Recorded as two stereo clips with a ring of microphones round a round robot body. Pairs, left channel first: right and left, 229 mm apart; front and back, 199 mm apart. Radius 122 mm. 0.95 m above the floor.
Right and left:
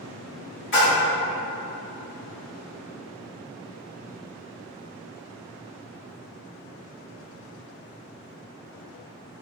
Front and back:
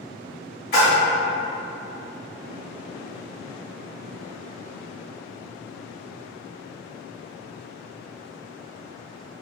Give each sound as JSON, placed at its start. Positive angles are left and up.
{"t": 0.7, "sound": "a splash", "azimuth_deg": -50, "distance_m": 1.4}